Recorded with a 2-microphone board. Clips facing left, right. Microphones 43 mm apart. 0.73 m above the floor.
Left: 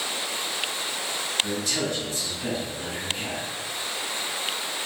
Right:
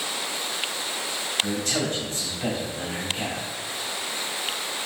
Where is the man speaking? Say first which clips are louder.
Right 1 dB; 60° right (ahead or behind), 1.9 m.